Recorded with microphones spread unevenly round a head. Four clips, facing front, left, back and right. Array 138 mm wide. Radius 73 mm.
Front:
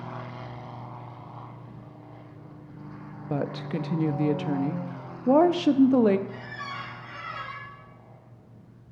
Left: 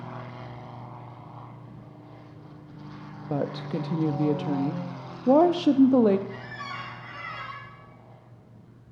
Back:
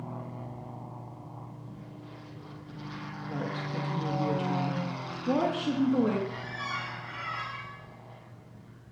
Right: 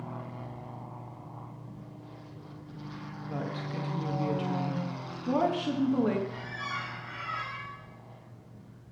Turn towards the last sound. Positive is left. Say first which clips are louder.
# even, back 1 dB
turn(degrees=25)